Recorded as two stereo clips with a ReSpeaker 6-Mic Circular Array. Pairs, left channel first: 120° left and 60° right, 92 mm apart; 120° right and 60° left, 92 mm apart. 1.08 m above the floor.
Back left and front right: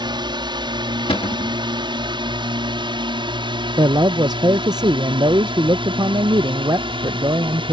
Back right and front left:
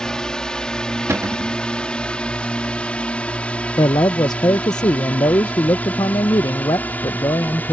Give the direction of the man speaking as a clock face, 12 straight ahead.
3 o'clock.